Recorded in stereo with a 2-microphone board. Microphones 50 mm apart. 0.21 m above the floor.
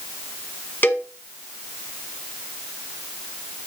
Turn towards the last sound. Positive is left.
turn(degrees=40)  # may be behind; listen again after turning